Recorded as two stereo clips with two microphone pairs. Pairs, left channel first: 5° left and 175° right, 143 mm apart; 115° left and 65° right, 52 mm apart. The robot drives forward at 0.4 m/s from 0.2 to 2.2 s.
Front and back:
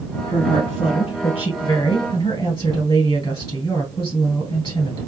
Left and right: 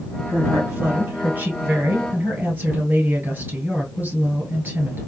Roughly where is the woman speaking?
Ahead right.